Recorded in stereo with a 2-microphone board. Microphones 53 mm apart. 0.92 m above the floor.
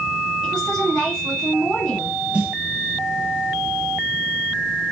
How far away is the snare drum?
About 1.0 m.